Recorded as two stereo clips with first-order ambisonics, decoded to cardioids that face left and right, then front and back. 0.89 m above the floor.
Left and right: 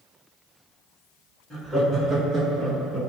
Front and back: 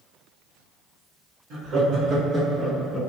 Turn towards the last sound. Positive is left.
turn(degrees=-55)